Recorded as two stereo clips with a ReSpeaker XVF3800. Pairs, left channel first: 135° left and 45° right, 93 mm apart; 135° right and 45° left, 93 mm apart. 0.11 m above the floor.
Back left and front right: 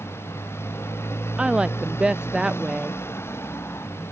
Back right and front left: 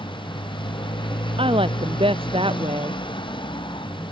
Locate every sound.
0.0 s a motorcycle: 160° right
1.4 s a woman speaking: 35° left